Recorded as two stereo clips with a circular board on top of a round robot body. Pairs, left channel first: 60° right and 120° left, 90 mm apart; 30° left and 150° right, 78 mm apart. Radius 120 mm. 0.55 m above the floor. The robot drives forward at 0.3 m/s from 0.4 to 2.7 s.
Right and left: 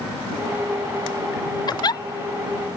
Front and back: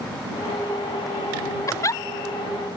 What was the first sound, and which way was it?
A giggle, 20° right.